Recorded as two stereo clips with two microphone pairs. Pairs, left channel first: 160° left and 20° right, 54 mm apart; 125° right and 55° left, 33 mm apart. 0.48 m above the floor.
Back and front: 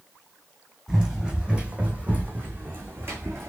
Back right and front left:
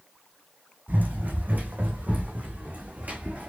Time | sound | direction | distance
0.9 | running footsteps | 60° left | 1.6 m